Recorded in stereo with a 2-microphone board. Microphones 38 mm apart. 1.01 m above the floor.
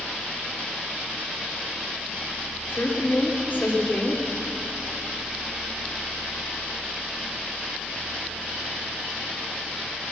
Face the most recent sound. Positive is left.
turn(degrees=50)  # may be behind; listen again after turning